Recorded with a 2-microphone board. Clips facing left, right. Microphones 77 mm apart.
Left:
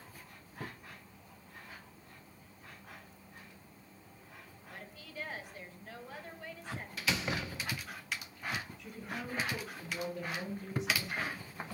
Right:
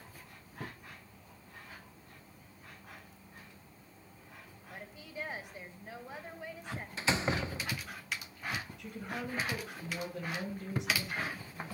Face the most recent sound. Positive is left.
turn(degrees=-85)